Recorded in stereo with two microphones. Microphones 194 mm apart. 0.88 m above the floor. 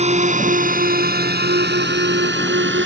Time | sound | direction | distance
0.0 | a drone | 35° right (ahead or behind) | ?